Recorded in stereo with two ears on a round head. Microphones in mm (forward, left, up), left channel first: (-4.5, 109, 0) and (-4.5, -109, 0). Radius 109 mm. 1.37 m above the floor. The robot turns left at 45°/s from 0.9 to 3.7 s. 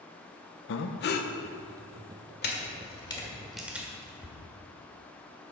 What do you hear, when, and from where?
0.7 s breathing: 50° left (ahead or behind), 0.7 m; by 1.3 s 30° left (ahead or behind), 0.7 m
2.4 s a camera shutter: 45° left (ahead or behind), 1.8 m; by 4.4 s 5° right (ahead or behind), 1.8 m